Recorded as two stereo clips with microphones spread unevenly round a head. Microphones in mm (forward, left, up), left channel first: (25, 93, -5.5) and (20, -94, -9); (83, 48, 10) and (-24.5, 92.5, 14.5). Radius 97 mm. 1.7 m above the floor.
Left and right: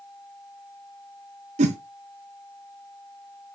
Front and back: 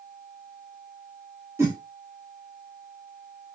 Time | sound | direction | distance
1.6 | a whoosh | 135° right | 0.7 m